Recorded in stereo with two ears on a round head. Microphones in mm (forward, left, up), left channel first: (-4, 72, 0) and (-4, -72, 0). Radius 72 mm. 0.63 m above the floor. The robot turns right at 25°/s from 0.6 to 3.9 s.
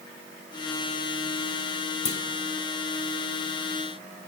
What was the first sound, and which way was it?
A clunk, 45° left (ahead or behind).